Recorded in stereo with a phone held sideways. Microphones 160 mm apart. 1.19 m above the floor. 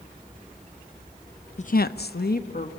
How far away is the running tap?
No running tap in this recording.